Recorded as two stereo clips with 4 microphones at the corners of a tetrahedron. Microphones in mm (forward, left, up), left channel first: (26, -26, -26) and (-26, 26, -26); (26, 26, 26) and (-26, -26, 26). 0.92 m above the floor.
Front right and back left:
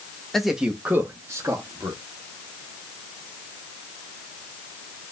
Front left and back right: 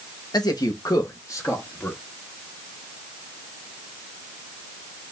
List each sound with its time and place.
0.3 s a man speaking: 40° left, 0.9 m; by 2.0 s 100° left, 1.7 m